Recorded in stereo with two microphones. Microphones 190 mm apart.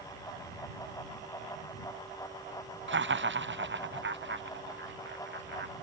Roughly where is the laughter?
Right.